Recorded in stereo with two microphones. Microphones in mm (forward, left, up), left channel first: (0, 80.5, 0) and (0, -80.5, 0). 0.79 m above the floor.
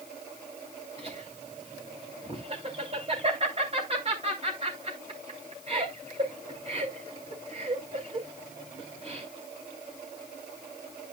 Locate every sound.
1.0 s laughter: 40° right (ahead or behind), 3 m